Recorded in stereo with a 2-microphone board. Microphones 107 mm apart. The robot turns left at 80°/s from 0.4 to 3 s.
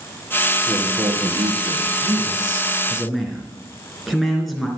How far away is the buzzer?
I don't hear a buzzer.